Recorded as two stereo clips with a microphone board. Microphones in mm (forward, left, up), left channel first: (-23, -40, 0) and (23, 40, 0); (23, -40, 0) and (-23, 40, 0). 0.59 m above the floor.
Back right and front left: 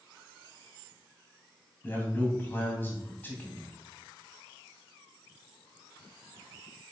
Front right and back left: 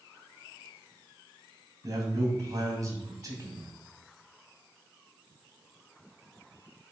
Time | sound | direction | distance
1.8 | a man speaking | 170° left | 3.5 m